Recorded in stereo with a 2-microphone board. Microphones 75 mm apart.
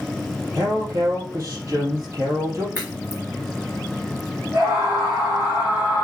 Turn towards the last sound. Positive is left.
turn(degrees=-30)  # may be behind; listen again after turning